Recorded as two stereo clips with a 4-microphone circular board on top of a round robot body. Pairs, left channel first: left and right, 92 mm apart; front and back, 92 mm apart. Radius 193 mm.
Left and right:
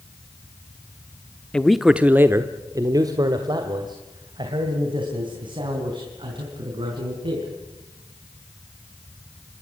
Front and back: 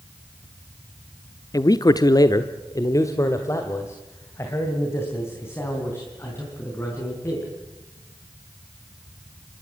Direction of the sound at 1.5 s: 15° left.